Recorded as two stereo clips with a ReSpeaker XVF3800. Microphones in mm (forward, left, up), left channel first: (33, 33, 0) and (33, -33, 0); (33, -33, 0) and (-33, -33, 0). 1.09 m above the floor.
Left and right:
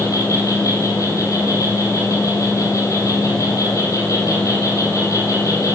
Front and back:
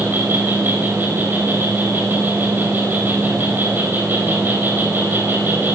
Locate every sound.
0.0 s an insect: 120° left, 8 m